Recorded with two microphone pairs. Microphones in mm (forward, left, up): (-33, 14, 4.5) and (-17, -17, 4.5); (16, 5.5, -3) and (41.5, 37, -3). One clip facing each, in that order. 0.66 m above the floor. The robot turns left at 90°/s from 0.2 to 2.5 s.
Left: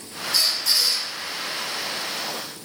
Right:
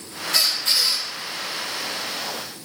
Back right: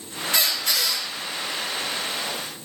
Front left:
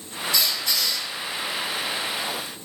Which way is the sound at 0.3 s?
80° right.